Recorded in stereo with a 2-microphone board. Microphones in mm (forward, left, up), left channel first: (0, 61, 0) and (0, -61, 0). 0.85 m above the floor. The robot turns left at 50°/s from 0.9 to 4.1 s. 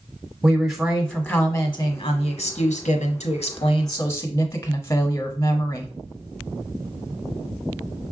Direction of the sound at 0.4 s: 175° right.